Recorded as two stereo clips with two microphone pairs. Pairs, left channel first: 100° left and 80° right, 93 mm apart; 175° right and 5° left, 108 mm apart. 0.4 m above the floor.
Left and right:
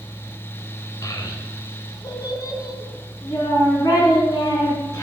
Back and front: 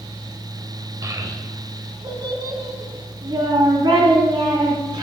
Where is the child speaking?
55° left, 1.1 m; by 5.0 s 50° left, 4 m.